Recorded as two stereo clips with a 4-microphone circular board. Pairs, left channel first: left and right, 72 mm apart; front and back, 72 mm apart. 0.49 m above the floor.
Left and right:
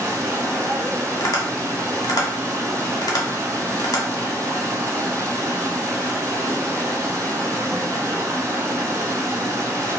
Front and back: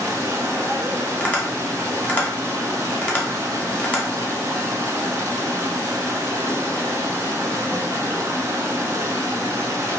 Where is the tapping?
70° left, 0.8 m.